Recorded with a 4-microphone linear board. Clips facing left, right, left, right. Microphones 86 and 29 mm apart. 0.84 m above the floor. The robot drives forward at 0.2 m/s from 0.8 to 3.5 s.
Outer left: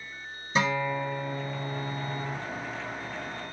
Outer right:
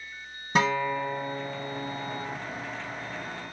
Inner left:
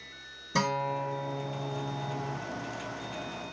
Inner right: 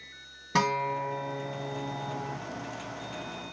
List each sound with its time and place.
0.6 s a guitar: 55° right (ahead or behind), 1.9 m; by 2.4 s 60° right (ahead or behind), 1.7 m